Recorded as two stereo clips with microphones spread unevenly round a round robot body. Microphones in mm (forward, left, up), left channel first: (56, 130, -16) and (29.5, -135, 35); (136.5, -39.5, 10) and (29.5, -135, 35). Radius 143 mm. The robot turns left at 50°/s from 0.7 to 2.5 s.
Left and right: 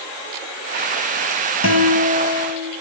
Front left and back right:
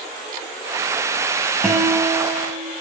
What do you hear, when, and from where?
1.6 s a guitar: 130° left, 1.4 m; by 2.7 s 90° left, 1.4 m